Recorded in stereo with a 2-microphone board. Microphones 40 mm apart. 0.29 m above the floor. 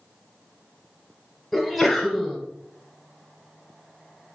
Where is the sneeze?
5° left (ahead or behind), 1.2 m.